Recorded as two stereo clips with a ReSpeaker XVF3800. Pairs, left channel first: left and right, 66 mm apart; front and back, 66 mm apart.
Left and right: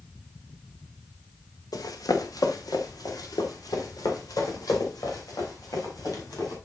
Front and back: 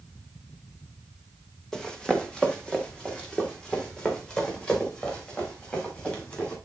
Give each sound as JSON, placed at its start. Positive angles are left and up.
{"t": 1.7, "sound": "running footsteps", "azimuth_deg": 80, "distance_m": 1.5}